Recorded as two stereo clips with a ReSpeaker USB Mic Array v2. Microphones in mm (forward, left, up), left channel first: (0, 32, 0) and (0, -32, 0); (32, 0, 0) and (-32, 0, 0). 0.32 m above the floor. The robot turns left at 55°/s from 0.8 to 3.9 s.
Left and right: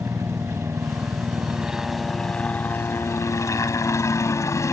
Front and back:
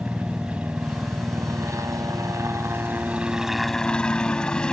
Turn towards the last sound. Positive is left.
turn(degrees=75)